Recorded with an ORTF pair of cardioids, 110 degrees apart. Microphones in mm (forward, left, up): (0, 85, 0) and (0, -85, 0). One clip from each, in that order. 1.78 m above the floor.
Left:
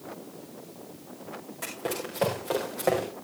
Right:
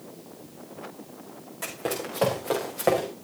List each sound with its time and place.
1.6 s running footsteps: 15° right, 6 m; by 3.1 s 20° right, 7 m